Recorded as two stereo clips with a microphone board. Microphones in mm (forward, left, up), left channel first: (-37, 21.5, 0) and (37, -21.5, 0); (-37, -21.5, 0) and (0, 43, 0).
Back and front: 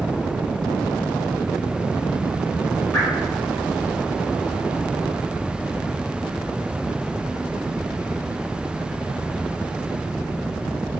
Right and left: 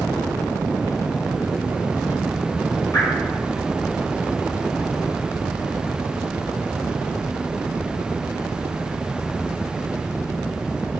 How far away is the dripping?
About 1.2 m.